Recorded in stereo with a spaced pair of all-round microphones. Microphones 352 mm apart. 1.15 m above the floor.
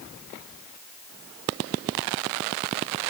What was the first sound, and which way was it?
Only background noise.